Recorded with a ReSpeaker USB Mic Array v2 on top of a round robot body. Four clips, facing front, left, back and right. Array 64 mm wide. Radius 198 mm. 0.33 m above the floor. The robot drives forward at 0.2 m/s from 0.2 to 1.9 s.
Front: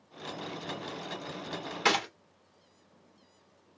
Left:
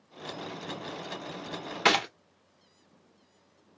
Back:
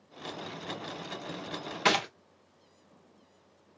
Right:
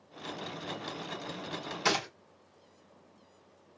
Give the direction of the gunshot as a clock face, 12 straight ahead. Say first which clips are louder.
Left 6 dB, back 1 dB; 9 o'clock.